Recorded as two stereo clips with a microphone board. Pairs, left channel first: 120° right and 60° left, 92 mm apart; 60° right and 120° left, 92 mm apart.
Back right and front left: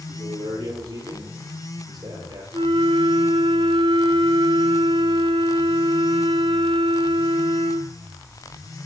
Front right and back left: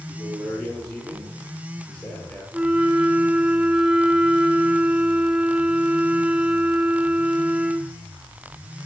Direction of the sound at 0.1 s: 35° left.